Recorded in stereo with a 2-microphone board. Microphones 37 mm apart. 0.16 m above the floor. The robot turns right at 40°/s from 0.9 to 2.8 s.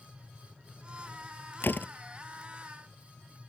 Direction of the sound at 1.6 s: 65° left (ahead or behind).